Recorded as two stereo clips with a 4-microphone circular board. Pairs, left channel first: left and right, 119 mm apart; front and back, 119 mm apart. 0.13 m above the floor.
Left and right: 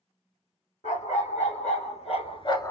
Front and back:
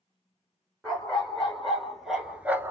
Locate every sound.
0.8 s a dog barking: 85° left, 2.5 m; by 2.7 s 135° left, 0.5 m